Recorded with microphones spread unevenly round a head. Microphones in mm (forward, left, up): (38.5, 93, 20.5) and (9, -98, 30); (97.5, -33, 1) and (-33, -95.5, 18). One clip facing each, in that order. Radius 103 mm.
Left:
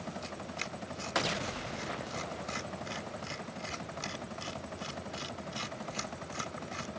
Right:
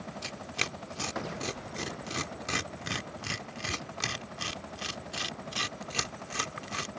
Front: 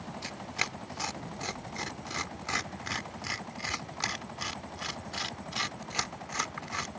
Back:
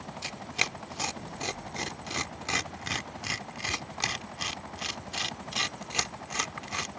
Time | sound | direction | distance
0.2 | tearing paper | 90° right | ?